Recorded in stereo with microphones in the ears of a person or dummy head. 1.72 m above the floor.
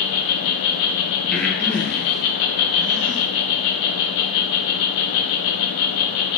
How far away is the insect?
About 0.9 m.